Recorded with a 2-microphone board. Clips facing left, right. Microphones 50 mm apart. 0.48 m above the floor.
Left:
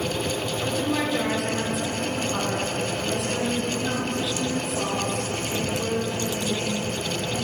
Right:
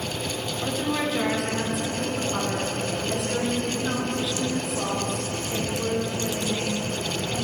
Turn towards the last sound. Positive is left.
turn(degrees=-5)  # may be behind; listen again after turning